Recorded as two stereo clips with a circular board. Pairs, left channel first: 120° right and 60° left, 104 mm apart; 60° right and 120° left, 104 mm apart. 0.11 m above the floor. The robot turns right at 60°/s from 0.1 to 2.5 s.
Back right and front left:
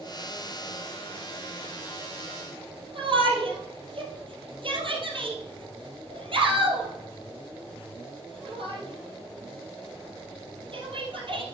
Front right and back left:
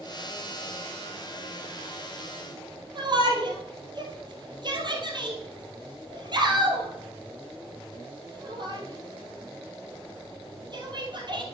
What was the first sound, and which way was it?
A shout, 85° left.